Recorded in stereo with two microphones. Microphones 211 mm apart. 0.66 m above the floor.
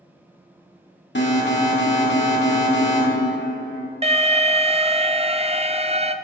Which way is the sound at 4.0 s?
30° right (ahead or behind).